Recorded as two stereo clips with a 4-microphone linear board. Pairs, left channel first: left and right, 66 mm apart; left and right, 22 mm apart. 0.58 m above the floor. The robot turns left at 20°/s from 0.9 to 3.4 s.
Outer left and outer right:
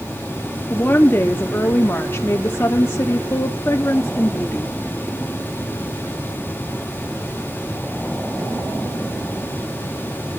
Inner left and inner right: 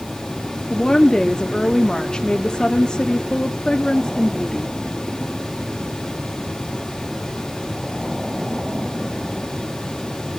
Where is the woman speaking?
125° left, 0.9 m; by 4.8 s 75° left, 0.9 m.